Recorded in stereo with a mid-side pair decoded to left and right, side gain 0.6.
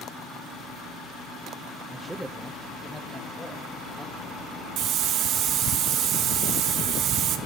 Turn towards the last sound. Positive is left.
turn(degrees=-60)